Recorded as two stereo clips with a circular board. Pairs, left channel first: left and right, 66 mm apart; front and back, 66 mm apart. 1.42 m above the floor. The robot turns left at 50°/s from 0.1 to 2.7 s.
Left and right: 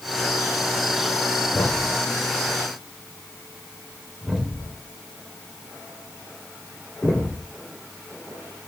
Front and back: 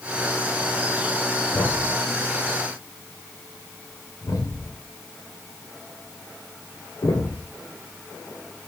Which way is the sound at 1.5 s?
55° left.